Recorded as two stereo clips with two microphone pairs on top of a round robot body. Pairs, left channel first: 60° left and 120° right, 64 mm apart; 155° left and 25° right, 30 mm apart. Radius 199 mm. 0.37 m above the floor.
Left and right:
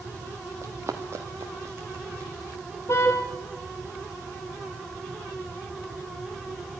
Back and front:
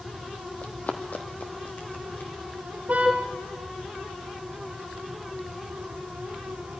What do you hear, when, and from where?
0.6 s running footsteps: 170° right, 0.7 m; by 2.3 s 175° right, 1.6 m
2.9 s a car horn: 15° left, 3 m